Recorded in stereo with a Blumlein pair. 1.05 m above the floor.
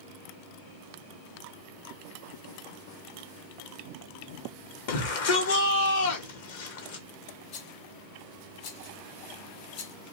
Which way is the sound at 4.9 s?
55° left.